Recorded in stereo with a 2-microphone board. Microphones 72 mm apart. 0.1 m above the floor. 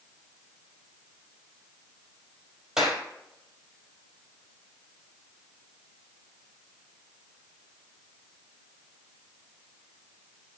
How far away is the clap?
About 2.5 m.